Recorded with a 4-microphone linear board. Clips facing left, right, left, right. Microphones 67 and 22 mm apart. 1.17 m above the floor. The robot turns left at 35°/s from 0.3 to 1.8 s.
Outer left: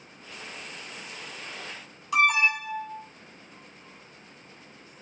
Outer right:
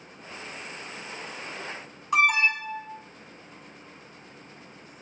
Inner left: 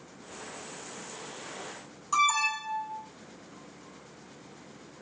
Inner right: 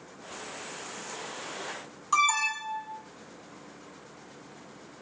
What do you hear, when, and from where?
2.1 s an alarm: 30° right (ahead or behind), 6 m